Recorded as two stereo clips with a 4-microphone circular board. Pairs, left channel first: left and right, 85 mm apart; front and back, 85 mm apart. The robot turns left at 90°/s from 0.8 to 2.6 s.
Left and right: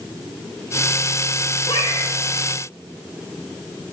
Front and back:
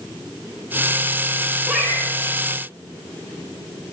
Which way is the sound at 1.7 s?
105° left.